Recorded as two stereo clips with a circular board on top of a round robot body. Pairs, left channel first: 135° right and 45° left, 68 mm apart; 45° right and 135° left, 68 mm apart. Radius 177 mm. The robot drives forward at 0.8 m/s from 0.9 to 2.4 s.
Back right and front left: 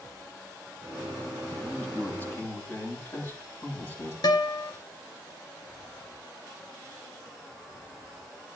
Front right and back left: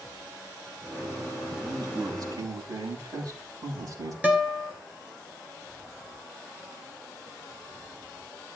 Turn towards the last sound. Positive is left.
turn(degrees=-155)